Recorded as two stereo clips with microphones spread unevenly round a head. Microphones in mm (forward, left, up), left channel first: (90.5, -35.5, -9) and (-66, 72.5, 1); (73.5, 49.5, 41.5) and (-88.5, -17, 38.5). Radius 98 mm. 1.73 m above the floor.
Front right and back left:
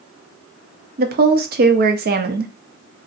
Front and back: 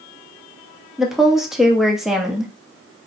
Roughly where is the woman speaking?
Behind left.